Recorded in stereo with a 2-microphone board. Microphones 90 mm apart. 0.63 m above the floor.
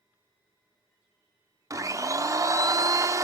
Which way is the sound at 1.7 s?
40° right (ahead or behind).